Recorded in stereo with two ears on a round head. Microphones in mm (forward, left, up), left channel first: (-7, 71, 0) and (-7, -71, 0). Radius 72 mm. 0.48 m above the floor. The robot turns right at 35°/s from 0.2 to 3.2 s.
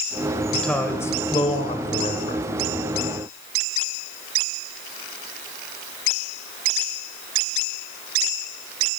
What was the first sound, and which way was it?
A man speaking, straight ahead.